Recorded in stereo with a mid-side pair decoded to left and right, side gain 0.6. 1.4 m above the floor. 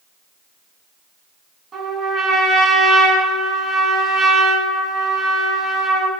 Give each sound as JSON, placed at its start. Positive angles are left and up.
{"t": 1.7, "sound": "a trumpet", "azimuth_deg": -40, "distance_m": 4.5}